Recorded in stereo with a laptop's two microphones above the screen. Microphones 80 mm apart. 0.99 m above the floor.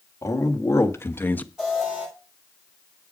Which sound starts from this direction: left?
A man speaking, at 0.2 s.